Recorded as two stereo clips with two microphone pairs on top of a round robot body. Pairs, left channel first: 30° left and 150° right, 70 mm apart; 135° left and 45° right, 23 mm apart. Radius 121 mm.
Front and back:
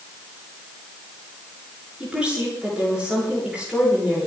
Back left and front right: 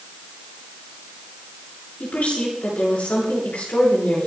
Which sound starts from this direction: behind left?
A woman speaking, at 2.0 s.